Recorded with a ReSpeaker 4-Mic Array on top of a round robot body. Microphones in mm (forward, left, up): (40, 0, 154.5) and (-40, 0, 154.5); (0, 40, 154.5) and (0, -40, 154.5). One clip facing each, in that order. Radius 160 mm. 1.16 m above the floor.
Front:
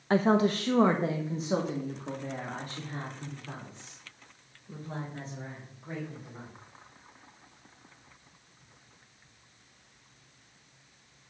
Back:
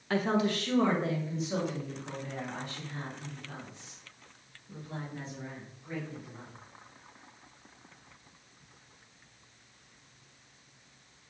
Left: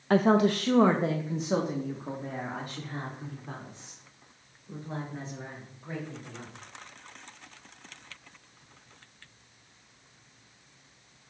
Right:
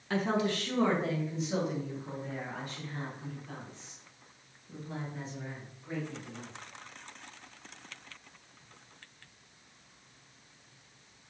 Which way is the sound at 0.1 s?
55° left.